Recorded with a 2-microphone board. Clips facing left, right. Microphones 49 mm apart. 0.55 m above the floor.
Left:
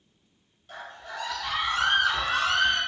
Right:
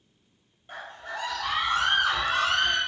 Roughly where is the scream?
Right.